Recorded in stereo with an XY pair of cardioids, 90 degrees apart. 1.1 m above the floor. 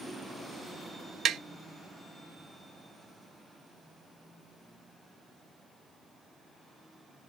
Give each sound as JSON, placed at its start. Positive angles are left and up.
{"t": 1.2, "sound": "tapping", "azimuth_deg": -70, "distance_m": 0.5}